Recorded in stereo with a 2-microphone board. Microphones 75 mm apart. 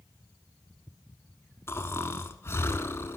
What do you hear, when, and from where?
1.7 s snoring: 35° left (ahead or behind), 0.7 m